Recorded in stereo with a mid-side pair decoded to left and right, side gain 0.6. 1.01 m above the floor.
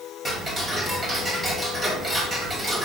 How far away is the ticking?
About 2 m.